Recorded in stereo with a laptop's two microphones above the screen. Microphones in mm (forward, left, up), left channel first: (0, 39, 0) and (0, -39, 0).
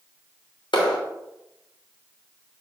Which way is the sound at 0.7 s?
80° left.